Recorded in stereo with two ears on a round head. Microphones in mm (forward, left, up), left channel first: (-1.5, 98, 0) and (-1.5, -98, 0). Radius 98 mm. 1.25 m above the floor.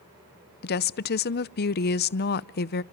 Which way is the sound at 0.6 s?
45° left (ahead or behind).